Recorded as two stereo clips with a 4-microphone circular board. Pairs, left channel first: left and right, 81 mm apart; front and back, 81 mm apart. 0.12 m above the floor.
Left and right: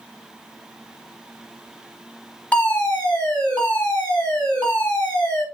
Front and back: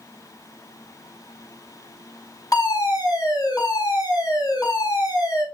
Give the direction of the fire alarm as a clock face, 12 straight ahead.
11 o'clock.